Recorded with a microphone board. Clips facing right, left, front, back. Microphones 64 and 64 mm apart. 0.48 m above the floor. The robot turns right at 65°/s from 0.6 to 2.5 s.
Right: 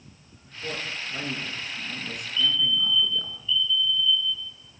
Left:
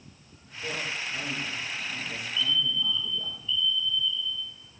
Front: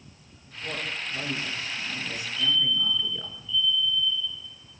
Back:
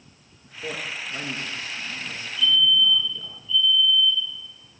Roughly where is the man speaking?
Behind.